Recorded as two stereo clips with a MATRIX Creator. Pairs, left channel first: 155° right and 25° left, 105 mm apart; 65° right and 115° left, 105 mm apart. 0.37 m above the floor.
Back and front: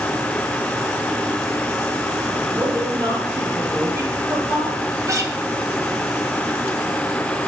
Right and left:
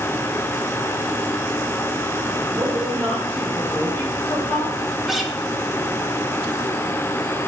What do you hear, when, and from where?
2.5 s a woman speaking: 50° left, 1.8 m; by 4.8 s 55° right, 2.5 m
5.1 s a guitar: 30° left, 0.5 m